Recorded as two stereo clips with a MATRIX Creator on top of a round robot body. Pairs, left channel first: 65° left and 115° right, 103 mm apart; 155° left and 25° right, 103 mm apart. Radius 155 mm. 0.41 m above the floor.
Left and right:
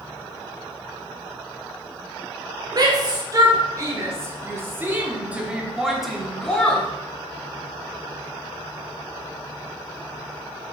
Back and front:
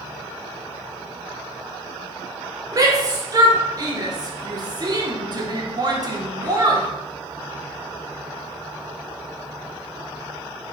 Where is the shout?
70° right, 2.5 m; by 6.9 s straight ahead, 1.7 m.